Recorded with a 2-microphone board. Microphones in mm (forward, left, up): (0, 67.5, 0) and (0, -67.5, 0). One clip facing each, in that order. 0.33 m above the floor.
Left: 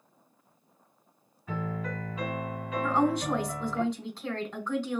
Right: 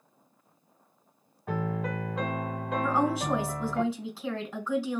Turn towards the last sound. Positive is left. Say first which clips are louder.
# left 1 dB
turn(degrees=-5)  # may be behind; listen again after turning